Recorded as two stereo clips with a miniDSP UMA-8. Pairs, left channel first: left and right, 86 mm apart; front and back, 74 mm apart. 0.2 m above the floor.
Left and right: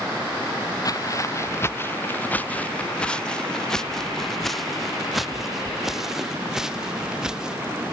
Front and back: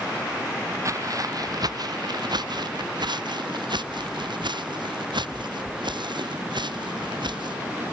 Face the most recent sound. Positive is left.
turn(degrees=-170)